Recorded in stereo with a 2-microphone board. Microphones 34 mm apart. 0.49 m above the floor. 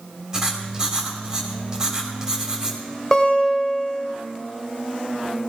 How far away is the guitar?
About 2.5 m.